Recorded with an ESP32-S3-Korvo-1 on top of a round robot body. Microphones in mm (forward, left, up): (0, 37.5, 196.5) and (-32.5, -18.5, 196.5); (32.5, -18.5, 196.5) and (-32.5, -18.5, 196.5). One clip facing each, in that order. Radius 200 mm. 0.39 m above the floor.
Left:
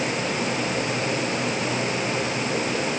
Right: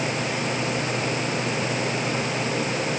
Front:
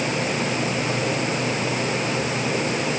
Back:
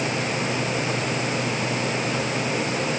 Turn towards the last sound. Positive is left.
No sound to turn to.